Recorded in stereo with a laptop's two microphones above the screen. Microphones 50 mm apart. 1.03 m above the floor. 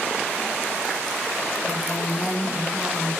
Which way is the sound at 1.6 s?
80° left.